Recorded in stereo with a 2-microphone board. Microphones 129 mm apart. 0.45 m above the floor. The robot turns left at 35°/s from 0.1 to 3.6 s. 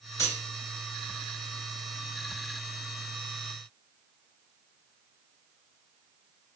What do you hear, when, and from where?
0.2 s cutlery clinking: 25° left (ahead or behind), 3 m; by 0.4 s 15° left (ahead or behind), 3 m